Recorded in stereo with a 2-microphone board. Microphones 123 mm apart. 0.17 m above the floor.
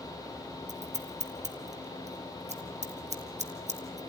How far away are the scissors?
About 2 m.